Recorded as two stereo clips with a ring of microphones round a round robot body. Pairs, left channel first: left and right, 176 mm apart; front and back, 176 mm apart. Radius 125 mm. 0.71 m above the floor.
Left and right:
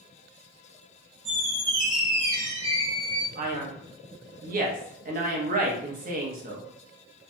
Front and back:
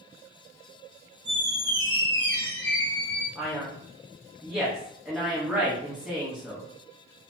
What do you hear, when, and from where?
1.2 s a squeak: 70° right, 0.6 m
3.4 s a man speaking: 95° right, 0.7 m